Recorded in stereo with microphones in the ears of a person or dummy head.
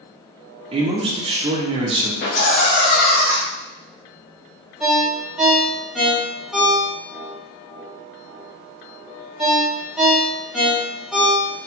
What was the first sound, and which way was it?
A man speaking, 25° right (ahead or behind).